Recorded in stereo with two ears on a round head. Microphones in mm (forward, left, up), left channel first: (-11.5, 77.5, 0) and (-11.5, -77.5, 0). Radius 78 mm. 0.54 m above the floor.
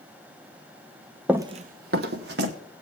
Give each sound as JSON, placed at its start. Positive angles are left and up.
{"t": 1.3, "sound": "running footsteps", "side_deg": -5, "distance_m": 0.6}